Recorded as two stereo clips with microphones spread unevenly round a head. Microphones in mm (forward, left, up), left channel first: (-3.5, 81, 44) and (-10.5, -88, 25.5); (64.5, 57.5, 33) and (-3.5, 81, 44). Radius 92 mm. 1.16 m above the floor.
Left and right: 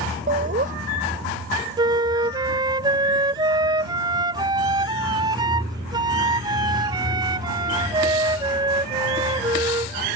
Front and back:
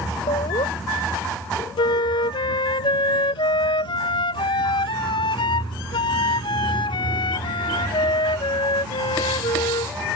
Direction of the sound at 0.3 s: 45° right.